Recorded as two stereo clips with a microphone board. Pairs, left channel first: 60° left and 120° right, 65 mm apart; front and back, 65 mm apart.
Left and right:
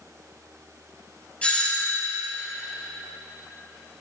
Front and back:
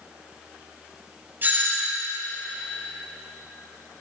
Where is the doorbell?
130° left, 3.5 m.